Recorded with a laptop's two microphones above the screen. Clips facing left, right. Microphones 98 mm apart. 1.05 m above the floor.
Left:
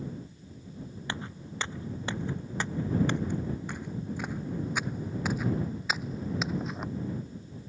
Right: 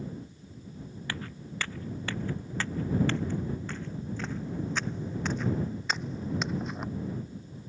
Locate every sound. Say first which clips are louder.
1.1 s footsteps: even; 20° left (ahead or behind); by 6.9 s centre (ahead or behind)